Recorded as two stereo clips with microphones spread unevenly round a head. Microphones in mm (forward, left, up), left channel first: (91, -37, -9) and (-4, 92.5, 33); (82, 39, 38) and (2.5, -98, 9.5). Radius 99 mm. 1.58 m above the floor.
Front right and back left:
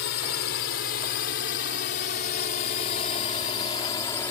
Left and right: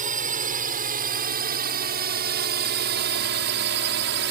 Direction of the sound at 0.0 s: 85° right.